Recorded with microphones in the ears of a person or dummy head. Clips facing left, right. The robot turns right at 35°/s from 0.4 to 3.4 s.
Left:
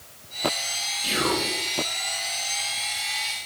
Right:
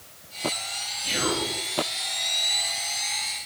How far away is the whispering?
About 0.9 m.